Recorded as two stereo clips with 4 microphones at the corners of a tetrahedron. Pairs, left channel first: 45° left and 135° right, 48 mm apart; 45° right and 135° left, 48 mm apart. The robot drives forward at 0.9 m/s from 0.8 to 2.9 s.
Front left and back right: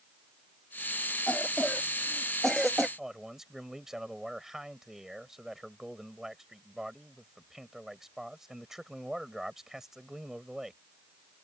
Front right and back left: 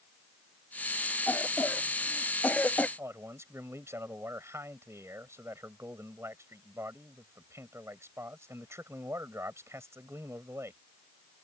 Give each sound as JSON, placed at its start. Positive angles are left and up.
{"t": 1.3, "sound": "a cough", "azimuth_deg": -15}
{"t": 3.0, "sound": "a man speaking", "azimuth_deg": 145}